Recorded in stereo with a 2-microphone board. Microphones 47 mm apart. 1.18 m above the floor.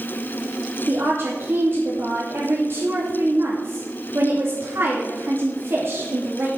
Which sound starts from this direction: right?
A woman speaking, at 0.9 s.